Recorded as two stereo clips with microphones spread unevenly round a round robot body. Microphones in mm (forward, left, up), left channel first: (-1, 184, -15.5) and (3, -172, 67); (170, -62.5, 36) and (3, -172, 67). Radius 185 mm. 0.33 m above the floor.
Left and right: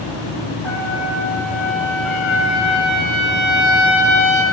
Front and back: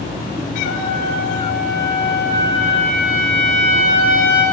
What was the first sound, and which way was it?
A trumpet, straight behind.